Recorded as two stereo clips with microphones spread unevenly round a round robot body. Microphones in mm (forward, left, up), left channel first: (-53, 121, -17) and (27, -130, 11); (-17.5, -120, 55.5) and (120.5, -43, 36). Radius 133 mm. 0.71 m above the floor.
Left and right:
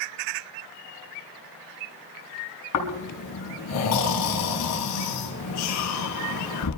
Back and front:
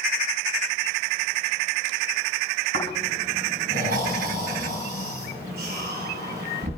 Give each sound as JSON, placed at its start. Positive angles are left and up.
{"t": 2.7, "sound": "snoring", "azimuth_deg": 75, "distance_m": 3.5}